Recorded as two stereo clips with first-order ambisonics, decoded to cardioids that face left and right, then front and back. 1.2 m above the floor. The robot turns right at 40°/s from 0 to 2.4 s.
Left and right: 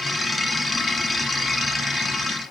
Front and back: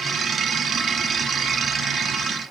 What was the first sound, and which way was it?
Only background noise.